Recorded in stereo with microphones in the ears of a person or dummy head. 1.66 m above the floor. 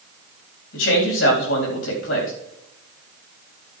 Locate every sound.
0.7 s a man speaking: 85° left, 4 m